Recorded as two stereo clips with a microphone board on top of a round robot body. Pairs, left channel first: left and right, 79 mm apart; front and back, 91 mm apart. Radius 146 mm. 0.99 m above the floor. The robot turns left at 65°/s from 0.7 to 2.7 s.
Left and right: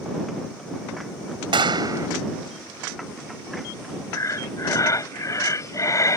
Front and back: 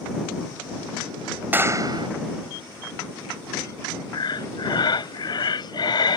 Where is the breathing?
40° left.